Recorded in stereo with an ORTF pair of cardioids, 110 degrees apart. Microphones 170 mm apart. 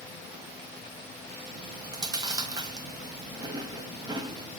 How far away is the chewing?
About 1.2 m.